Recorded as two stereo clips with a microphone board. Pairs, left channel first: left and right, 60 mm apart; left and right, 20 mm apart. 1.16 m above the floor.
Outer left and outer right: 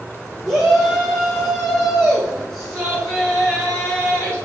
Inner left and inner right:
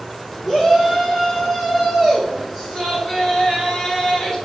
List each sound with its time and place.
0.5 s a shout: 15° right (ahead or behind), 3.5 m; by 4.3 s 25° left (ahead or behind), 2.5 m